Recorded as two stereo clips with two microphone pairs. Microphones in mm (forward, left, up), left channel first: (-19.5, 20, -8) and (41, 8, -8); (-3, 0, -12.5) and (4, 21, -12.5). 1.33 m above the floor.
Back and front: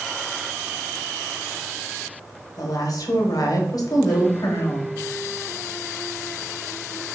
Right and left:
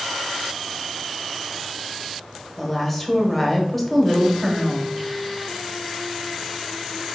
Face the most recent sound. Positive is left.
turn(degrees=175)